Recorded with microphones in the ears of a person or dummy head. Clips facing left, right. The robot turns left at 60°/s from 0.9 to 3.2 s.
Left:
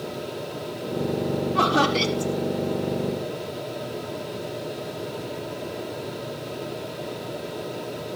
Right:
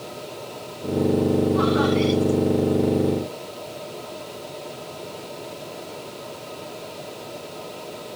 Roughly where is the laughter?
Left.